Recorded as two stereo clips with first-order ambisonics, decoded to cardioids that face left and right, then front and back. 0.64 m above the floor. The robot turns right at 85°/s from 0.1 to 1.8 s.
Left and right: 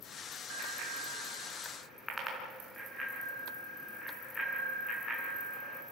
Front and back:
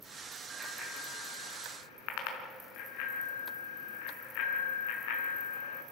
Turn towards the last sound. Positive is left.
turn(degrees=5)